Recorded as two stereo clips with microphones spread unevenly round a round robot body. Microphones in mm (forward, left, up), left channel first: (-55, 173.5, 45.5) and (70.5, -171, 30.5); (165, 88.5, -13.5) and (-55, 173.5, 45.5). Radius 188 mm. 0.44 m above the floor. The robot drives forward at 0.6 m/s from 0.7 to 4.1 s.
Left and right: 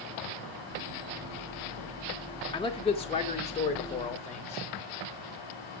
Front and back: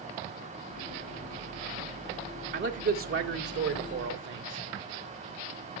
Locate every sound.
2.5 s a man speaking: straight behind, 1.2 m